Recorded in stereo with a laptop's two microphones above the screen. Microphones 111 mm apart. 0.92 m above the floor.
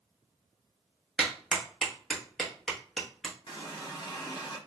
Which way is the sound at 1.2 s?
5° left (ahead or behind).